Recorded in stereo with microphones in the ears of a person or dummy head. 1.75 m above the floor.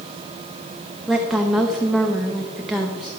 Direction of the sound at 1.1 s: Centre (ahead or behind).